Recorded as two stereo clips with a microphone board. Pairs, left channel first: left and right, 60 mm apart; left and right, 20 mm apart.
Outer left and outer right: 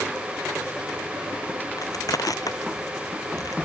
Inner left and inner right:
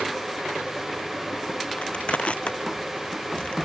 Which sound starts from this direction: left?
Crushing, at 1.8 s.